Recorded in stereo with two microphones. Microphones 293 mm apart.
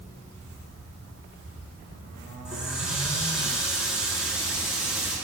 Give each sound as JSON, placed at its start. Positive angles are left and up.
{"t": 2.5, "sound": "a running tap", "side_deg": 0, "distance_m": 6.5}